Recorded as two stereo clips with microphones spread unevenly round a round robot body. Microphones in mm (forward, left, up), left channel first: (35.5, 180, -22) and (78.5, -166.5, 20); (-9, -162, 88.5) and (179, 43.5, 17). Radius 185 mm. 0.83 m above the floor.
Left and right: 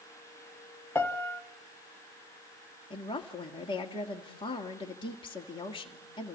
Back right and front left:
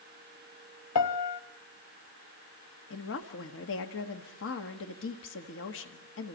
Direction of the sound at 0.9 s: Straight behind.